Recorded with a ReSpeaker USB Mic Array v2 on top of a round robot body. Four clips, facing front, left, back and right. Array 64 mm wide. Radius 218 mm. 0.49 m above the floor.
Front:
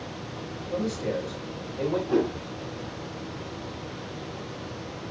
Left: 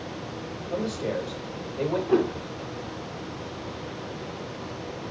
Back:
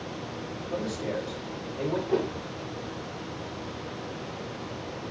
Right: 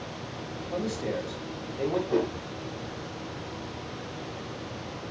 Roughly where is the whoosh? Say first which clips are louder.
Left 7 dB, front 4 dB; left.